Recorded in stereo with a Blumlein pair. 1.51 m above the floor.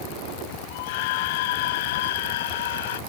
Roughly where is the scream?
Ahead left.